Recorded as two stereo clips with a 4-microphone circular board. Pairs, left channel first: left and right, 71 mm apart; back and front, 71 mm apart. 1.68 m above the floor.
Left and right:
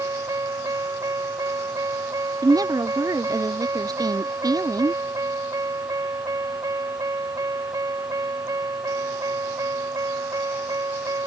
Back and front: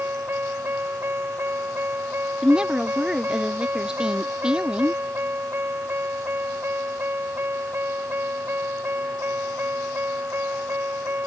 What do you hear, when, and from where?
0.0 s a vehicle: 60° right
2.4 s a woman speaking: 80° right